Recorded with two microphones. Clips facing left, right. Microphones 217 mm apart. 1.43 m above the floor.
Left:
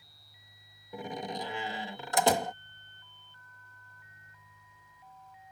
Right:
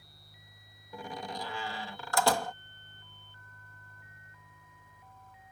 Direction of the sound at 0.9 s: 20° left (ahead or behind).